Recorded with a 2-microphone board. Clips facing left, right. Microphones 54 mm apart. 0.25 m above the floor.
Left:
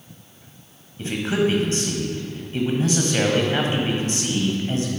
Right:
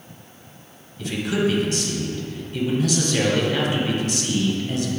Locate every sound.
1.0 s a man speaking: 35° left (ahead or behind), 1.2 m